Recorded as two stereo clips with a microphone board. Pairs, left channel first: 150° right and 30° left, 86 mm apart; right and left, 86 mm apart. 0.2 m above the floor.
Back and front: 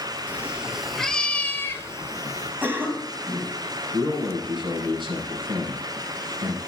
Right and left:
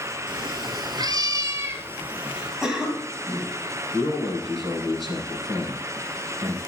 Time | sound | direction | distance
0.3 | a cat meowing | 100° left | 1.0 m
2.6 | a cough | 20° left | 1.7 m
3.9 | a man speaking | 50° left | 4.5 m